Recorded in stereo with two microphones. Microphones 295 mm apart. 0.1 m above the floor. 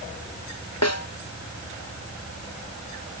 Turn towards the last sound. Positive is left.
turn(degrees=55)  # may be behind; listen again after turning